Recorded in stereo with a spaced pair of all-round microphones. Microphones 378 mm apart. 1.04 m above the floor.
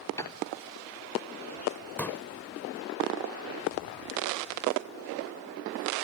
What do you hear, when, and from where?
0.2 s a piano: 10° left (ahead or behind)
2.0 s a pop: 5° left (ahead or behind)